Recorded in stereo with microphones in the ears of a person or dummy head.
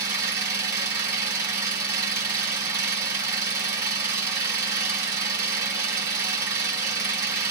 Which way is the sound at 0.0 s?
15° right (ahead or behind).